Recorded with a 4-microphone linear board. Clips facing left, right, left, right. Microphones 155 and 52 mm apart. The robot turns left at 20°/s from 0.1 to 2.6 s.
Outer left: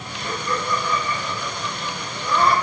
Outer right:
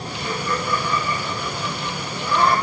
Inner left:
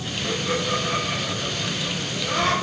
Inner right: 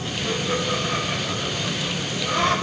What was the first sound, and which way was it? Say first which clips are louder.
Laughter: even, even; 45° left (ahead or behind).